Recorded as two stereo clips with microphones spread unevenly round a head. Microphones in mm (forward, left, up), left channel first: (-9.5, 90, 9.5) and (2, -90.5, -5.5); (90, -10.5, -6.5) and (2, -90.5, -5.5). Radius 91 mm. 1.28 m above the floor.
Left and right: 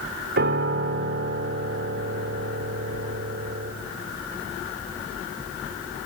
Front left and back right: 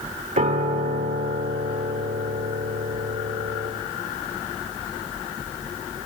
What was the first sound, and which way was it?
A piano, 125° right.